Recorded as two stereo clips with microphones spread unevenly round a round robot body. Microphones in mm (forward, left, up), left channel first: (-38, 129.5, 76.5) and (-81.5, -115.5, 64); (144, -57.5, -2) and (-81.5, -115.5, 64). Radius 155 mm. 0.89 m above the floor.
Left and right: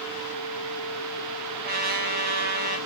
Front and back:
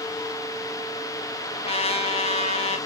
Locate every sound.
1.6 s a trumpet: 45° right, 1.7 m